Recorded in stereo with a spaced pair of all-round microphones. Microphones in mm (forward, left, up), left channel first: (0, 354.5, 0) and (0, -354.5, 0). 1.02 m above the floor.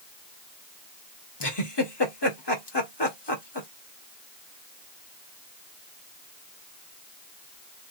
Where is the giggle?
35° left (ahead or behind), 1.6 m.